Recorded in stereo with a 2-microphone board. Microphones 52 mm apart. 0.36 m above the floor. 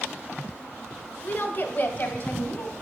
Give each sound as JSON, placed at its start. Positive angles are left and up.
{"t": 1.2, "sound": "a woman speaking", "side_deg": 35, "distance_m": 1.3}